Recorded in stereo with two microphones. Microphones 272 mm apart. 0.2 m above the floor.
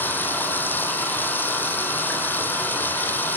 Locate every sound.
0.0 s running water: 5° left (ahead or behind), 3.5 m